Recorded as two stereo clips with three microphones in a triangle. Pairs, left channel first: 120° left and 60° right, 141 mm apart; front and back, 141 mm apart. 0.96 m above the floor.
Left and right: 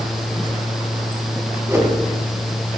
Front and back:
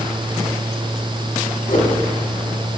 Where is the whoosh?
10° left, 5 m.